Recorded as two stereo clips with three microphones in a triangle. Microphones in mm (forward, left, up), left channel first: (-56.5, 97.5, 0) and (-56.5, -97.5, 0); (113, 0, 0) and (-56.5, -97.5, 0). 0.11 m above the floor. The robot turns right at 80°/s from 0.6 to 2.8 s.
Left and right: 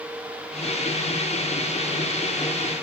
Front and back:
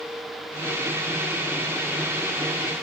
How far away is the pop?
No pop in this recording.